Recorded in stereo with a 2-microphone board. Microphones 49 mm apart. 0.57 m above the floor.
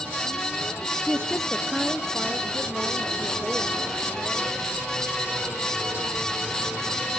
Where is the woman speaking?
25° left (ahead or behind), 0.8 m; by 4.9 s 55° right (ahead or behind), 3 m.